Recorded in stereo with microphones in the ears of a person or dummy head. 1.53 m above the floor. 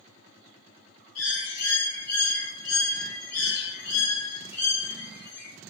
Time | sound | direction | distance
1.1 | a bird | 85° left | 1.0 m